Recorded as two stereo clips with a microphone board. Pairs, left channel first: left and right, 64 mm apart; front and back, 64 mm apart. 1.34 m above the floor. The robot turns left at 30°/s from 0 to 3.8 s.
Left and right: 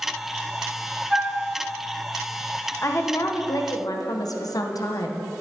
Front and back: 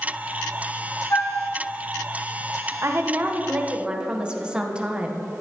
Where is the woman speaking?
135° left, 1.0 m; by 5.2 s 105° left, 1.0 m.